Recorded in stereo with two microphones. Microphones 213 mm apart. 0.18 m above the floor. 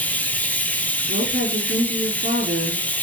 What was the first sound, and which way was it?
Running water, 5° left (ahead or behind).